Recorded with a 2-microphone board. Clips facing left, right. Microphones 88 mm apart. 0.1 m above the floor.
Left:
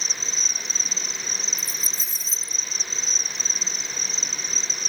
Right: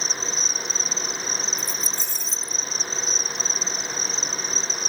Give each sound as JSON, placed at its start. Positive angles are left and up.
{"t": 0.0, "sound": "an insect", "side_deg": -5}
{"t": 1.6, "sound": "keys jangling", "side_deg": 5}